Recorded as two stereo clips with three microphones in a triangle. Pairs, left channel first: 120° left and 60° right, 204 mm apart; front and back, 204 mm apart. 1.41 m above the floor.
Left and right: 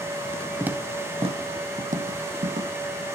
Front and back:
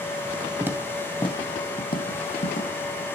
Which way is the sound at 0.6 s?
135° right.